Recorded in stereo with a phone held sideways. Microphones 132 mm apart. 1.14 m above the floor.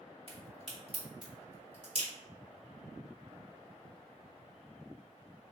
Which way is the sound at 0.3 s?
45° right (ahead or behind).